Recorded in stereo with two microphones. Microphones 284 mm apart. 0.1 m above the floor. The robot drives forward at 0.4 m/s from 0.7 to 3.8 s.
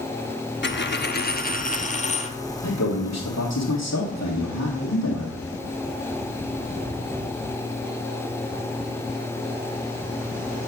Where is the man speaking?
70° left (ahead or behind), 3 m; by 5.4 s 65° left (ahead or behind), 3 m.